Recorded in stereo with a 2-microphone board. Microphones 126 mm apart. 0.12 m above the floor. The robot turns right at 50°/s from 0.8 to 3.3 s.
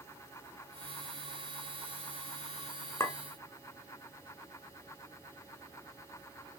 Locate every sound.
3.0 s a clink: 25° left (ahead or behind), 1.1 m; by 3.2 s 20° left (ahead or behind), 1.1 m